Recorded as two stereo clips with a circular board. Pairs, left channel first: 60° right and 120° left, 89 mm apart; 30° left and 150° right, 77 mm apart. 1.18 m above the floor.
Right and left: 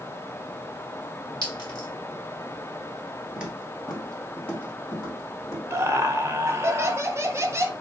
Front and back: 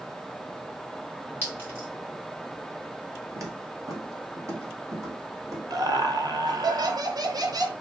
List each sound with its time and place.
1.4 s a clink: 90° right, 2 m
3.4 s footsteps: 165° right, 1.4 m; by 5.6 s 110° right, 2.5 m
5.7 s laughter: straight behind, 0.7 m